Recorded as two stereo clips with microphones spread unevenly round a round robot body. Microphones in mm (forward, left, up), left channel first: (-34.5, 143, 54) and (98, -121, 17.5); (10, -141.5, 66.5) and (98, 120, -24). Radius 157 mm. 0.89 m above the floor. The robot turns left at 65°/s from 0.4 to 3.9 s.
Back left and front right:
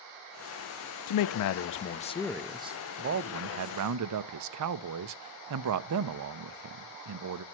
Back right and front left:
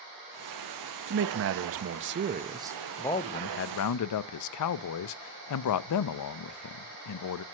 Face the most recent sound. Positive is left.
turn(degrees=-75)